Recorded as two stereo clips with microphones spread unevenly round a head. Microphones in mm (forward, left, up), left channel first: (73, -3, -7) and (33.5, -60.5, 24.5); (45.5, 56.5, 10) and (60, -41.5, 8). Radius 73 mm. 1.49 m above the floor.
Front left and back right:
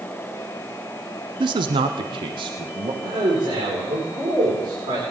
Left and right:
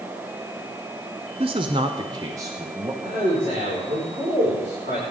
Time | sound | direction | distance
1.4 | a man speaking | 135° right | 0.6 m
3.0 | a man speaking | 130° right | 5 m